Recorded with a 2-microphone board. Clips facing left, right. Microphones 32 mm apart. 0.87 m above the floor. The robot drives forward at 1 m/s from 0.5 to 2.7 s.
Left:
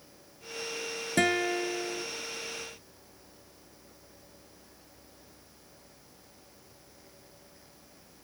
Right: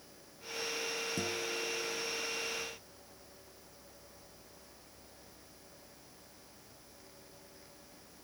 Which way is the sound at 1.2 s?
75° left (ahead or behind).